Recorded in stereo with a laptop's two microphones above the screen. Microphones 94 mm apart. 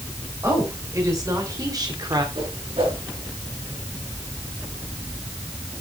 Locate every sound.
0.4 s a woman speaking: 30° right (ahead or behind), 3.5 m; by 2.2 s 50° right (ahead or behind), 2 m
2.4 s a whoosh: 65° right (ahead or behind), 5 m